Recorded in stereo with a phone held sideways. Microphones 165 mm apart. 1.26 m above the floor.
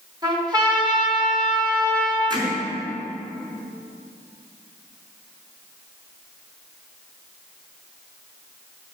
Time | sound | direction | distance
0.2 | a trumpet | 25° right (ahead or behind) | 3 m
2.3 | hammering | 25° right (ahead or behind) | 3.5 m